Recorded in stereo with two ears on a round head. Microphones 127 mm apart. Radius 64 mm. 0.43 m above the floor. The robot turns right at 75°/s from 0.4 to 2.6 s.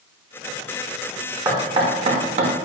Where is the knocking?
20° right (ahead or behind), 0.8 m; by 2.5 s 40° right (ahead or behind), 0.8 m.